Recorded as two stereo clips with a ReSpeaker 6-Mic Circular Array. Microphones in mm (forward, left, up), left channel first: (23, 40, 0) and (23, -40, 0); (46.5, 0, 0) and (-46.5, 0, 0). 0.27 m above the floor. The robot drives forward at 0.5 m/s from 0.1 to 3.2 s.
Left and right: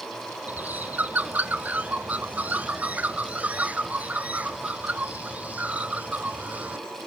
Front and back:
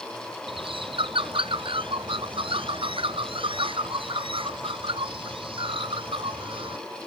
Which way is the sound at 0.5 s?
160° right.